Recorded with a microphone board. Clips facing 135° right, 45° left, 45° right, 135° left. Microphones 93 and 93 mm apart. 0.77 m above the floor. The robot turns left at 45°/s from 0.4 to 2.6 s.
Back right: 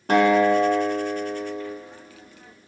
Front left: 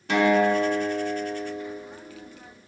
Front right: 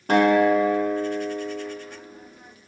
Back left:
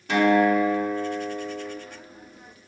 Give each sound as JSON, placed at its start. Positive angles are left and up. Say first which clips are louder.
{"t": 0.1, "sound": "a guitar", "louder": "back right 3 dB, front right 2 dB", "azimuth_deg": -90, "distance_m": 0.9}